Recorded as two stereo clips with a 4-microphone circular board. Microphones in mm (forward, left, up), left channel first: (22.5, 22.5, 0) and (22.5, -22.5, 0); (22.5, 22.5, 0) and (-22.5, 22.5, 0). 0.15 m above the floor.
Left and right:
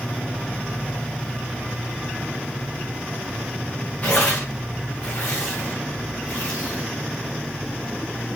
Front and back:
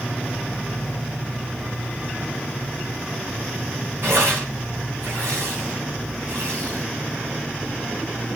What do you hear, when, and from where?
4.0 s tearing paper: 150° left, 8 m